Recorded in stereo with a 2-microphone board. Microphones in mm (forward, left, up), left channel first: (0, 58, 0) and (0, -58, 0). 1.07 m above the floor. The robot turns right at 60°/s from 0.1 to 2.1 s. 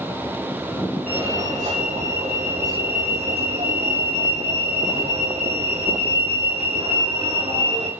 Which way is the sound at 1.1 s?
165° right.